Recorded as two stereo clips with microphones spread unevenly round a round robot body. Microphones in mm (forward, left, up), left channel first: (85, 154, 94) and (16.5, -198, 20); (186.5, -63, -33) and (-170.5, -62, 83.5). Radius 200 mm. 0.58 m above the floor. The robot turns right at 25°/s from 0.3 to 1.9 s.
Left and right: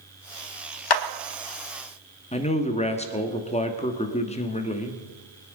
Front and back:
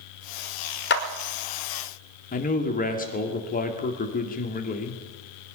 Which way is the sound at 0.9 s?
55° left.